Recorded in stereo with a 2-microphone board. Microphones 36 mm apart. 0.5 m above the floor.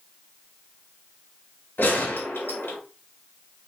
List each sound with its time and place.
1.8 s a gunshot: 80° left, 2.5 m